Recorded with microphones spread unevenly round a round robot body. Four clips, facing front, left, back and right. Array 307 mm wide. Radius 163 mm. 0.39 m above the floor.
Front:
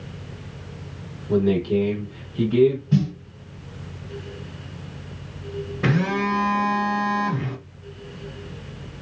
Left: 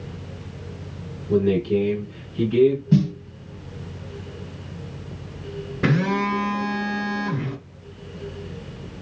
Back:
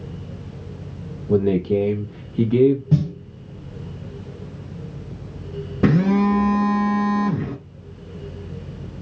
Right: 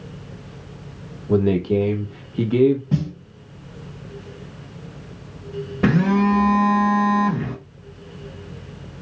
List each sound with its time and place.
1.3 s a man speaking: 140° right, 1.1 m
2.9 s a snare drum: 175° right, 1.3 m
5.8 s a phone buzzing: 175° right, 1.1 m